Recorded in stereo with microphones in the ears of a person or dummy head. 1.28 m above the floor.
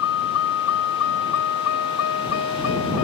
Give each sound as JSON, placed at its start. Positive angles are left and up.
{"t": 0.0, "sound": "a vehicle", "side_deg": 80}